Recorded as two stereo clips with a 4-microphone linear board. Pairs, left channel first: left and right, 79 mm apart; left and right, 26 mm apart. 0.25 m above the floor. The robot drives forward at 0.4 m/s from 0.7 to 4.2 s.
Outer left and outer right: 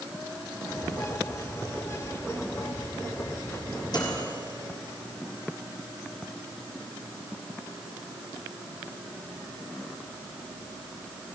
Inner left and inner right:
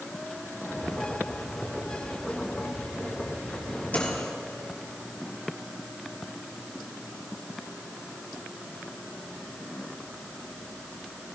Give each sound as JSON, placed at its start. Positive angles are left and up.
{"t": 3.9, "sound": "a microwave", "side_deg": 60, "distance_m": 5.0}